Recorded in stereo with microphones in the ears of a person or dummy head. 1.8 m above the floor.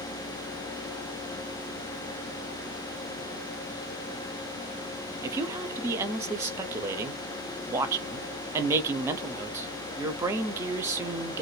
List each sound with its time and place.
5.2 s a woman speaking: 15° right (ahead or behind), 0.6 m